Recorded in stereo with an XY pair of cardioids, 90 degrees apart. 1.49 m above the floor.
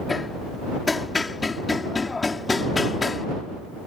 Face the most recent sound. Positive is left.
turn(degrees=25)